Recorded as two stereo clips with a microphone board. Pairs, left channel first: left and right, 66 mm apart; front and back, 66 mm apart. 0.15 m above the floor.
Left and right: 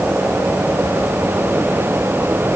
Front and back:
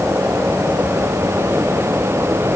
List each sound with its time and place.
Only background noise.